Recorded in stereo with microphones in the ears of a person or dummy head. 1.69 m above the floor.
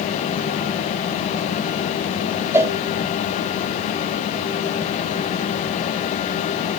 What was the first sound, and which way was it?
A cowbell, 15° right (ahead or behind).